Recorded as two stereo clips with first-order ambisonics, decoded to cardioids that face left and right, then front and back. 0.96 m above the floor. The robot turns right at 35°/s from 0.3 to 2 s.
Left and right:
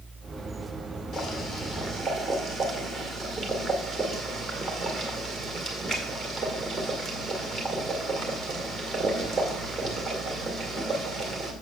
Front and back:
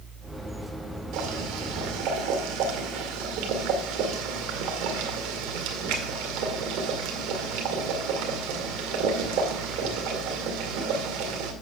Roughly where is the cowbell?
I don't hear a cowbell.